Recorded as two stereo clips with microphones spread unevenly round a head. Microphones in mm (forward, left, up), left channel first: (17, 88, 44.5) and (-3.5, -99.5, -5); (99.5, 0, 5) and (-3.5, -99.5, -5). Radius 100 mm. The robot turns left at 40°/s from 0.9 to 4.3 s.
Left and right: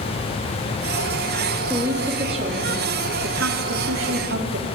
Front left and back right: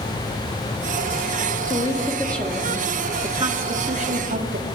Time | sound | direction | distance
1.7 | a woman speaking | 10° right | 3 m